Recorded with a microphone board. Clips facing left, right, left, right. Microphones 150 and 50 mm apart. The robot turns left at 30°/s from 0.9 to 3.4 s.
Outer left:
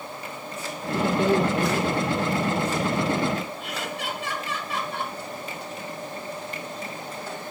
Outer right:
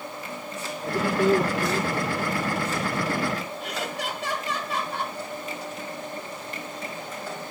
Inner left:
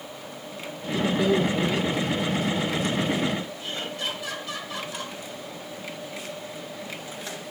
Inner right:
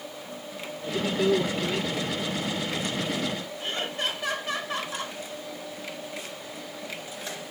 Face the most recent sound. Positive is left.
turn(degrees=-40)  # may be behind; listen again after turning